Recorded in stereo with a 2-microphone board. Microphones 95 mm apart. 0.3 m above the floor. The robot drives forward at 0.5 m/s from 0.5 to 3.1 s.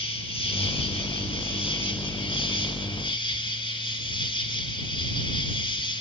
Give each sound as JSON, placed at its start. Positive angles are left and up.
{"t": 0.0, "sound": "an insect", "side_deg": 75, "distance_m": 3.0}